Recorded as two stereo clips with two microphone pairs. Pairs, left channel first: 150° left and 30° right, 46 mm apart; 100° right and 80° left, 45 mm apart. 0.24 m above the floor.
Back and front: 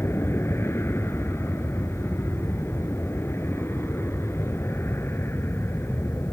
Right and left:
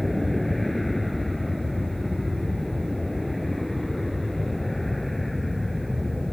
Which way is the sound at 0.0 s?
175° left.